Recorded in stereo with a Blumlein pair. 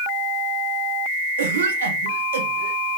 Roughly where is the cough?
Ahead right.